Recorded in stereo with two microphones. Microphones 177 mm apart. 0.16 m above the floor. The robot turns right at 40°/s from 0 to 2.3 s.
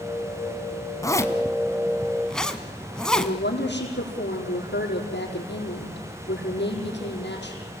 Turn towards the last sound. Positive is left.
turn(degrees=75)  # may be behind; listen again after turning